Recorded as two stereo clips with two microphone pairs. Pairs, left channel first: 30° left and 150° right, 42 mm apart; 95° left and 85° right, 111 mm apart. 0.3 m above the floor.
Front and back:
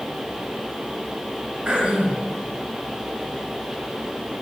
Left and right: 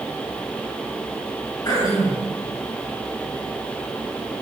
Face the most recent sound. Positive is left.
turn(degrees=150)